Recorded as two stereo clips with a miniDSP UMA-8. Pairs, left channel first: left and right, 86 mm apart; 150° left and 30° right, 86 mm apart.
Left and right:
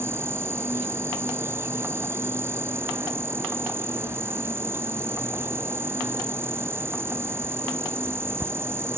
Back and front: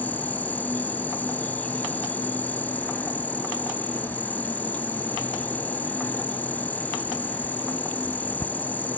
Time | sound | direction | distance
0.0 | an insect | 145° right | ?